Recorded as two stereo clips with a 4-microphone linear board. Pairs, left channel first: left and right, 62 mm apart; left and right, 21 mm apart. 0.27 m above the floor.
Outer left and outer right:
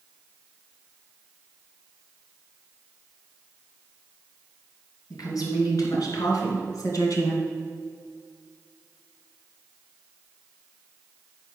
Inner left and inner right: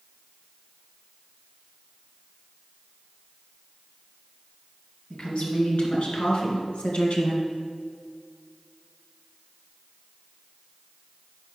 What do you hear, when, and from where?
5.1 s a woman speaking: 75° left (ahead or behind), 3.5 m; by 7.4 s 55° left (ahead or behind), 1.8 m